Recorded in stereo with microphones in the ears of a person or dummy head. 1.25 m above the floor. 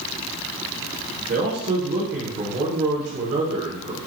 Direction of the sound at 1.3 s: 60° right (ahead or behind).